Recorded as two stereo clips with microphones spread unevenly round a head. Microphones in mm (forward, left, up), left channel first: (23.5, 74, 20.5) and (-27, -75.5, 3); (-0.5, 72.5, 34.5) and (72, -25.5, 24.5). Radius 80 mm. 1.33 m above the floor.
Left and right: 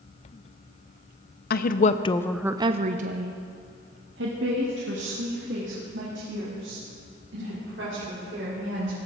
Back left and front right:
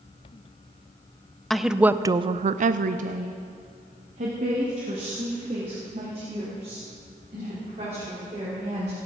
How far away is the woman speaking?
About 0.8 m.